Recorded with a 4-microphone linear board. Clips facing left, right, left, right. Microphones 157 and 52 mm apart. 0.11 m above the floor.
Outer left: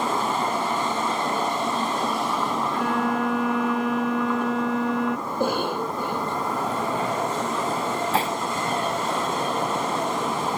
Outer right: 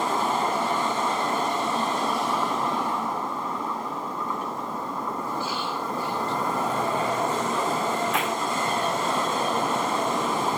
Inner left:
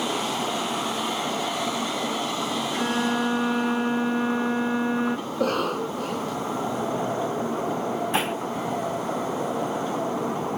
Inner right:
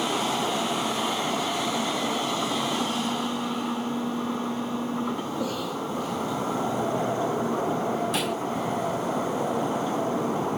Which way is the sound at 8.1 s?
30° left (ahead or behind).